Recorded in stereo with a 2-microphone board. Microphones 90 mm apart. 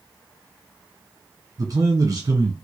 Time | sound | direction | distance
1.6 | a man speaking | 45° right (ahead or behind) | 1.4 m